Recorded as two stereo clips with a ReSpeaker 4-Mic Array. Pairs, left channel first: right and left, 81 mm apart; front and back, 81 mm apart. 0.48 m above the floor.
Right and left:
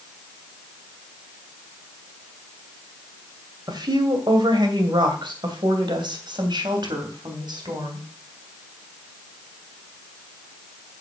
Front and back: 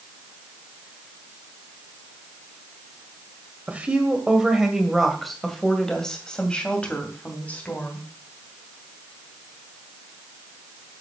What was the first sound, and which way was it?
A woman speaking, 110° left.